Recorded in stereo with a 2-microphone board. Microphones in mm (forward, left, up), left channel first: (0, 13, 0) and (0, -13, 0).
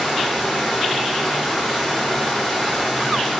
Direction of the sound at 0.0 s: 5° right (ahead or behind).